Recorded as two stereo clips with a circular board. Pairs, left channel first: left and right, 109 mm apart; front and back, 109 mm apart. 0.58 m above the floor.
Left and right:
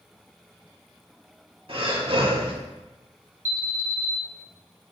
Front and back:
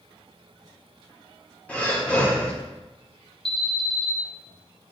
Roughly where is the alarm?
Right.